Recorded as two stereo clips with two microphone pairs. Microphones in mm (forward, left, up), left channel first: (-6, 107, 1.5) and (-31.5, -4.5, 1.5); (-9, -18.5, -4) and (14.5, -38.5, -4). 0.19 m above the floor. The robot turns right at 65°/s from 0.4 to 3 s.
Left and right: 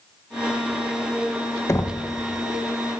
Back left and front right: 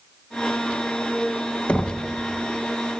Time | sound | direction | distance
1.7 | knocking | 120° left | 0.9 m